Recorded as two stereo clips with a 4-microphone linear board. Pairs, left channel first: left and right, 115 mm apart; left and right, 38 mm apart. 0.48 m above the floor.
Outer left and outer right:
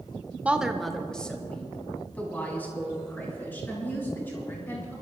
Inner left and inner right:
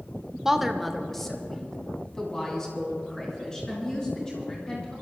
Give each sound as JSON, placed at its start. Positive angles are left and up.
{"t": 0.5, "sound": "a woman speaking", "side_deg": -10, "distance_m": 0.9}